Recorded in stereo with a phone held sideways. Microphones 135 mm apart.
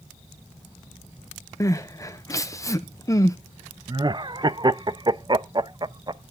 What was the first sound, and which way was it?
Crying, 25° left (ahead or behind).